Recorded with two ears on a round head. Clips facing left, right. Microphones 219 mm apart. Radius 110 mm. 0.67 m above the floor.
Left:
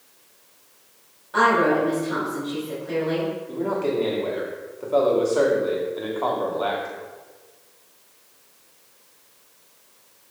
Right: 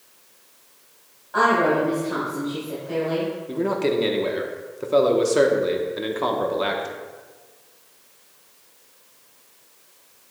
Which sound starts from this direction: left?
A woman speaking, at 1.3 s.